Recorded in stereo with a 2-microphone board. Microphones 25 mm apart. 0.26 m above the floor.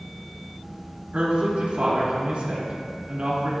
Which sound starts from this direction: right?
A woman speaking, at 1.1 s.